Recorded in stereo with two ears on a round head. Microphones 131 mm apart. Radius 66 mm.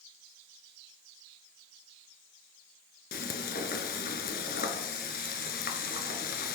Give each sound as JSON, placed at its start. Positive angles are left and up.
{"t": 3.1, "sound": "frying", "side_deg": 70, "distance_m": 1.4}